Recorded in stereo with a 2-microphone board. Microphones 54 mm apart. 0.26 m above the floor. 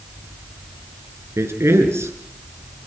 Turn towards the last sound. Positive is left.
turn(degrees=-60)  # may be behind; listen again after turning